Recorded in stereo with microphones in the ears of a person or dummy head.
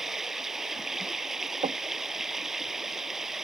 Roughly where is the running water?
Centre.